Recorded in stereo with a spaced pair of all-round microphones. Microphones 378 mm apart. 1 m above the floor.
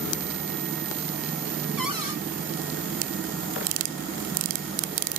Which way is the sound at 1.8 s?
60° right (ahead or behind).